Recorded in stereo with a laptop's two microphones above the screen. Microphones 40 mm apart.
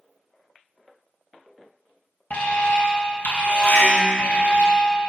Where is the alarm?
55° left (ahead or behind), 1.7 m.